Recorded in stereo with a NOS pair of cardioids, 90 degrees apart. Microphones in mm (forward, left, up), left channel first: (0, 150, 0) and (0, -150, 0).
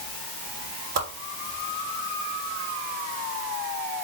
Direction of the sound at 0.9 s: 60° right.